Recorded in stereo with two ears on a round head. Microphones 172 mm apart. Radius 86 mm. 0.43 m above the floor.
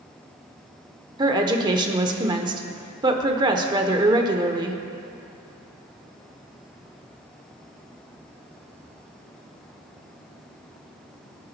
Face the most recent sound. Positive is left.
turn(degrees=-25)  # may be behind; listen again after turning